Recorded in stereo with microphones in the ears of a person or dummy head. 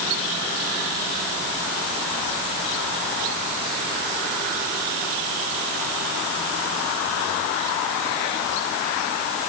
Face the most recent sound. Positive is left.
No sound to turn to.